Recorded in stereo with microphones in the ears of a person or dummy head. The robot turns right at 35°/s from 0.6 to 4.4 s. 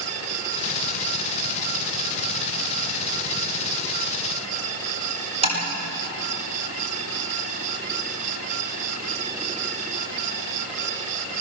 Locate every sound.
5.4 s tapping: 35° right (ahead or behind), 8.5 m